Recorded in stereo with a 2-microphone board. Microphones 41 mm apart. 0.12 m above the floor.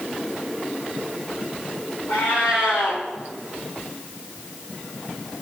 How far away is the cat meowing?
About 3 m.